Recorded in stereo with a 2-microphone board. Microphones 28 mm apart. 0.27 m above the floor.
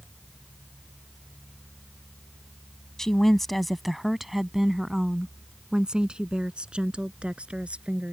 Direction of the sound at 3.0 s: 15° left (ahead or behind).